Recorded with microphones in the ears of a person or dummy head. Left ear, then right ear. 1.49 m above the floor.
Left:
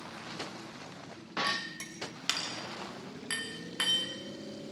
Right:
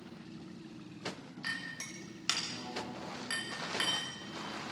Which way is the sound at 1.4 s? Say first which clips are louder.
Left 2 dB; 15° left (ahead or behind).